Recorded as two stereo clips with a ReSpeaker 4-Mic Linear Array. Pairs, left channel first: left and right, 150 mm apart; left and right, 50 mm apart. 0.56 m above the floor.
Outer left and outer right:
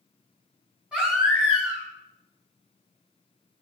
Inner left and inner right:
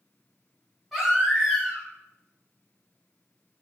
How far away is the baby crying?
About 4 m.